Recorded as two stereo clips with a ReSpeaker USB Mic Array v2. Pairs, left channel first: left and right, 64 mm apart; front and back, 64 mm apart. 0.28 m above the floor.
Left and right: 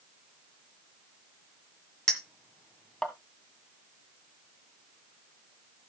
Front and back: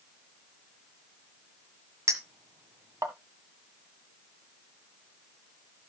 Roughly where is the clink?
Behind.